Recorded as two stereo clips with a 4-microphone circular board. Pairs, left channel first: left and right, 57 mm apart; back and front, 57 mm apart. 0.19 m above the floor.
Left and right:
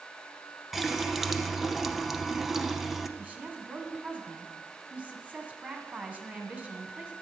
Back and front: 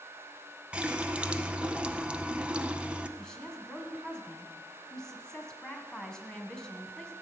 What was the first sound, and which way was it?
A running tap, 10° right.